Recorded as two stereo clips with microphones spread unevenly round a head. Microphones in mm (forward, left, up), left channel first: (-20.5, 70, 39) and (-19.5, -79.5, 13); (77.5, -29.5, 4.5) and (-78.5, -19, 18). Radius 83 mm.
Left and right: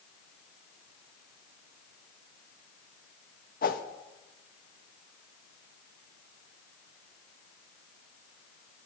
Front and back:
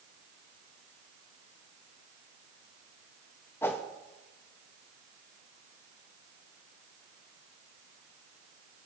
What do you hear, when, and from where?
3.6 s a whoosh: 75° left, 0.8 m